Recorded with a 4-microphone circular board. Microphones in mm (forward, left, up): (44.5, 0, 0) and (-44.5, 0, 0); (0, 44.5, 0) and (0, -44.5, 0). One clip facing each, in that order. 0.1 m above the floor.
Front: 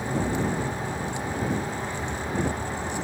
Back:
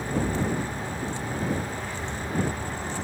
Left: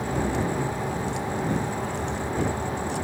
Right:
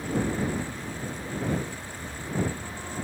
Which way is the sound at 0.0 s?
75° left.